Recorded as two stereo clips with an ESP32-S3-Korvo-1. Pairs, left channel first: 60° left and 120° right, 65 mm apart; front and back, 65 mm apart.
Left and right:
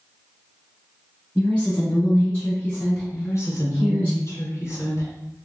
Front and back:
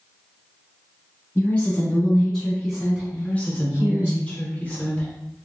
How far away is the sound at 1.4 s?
About 1.5 m.